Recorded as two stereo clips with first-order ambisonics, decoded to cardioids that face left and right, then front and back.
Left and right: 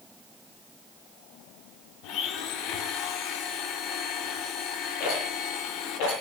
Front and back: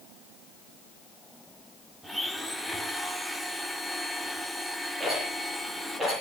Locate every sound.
2.0 s a blender: 95° left, 1.7 m
5.0 s a rattle: 100° left, 9.5 m